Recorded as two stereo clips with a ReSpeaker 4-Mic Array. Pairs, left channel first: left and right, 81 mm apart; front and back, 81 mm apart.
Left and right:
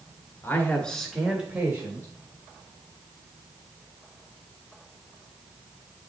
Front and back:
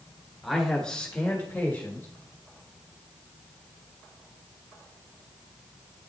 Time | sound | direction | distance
0.4 | a man speaking | 95° left | 1.4 m